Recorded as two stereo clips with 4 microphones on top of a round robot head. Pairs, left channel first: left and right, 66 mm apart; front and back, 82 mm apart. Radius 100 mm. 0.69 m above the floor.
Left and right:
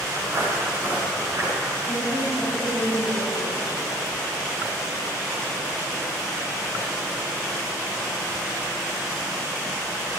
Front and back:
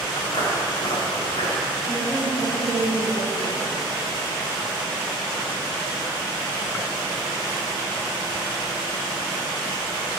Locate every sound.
0.2 s footsteps: 45° right, 6 m; by 1.5 s 35° right, 6.5 m
1.9 s a woman speaking: 75° right, 4.5 m